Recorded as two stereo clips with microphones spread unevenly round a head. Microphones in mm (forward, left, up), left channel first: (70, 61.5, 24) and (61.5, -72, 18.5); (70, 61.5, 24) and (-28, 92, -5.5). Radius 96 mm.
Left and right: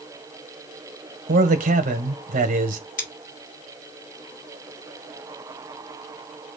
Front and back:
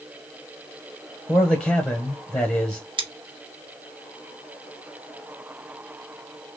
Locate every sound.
1.3 s a man speaking: 105° right, 1.1 m
3.0 s scissors: 120° left, 1.6 m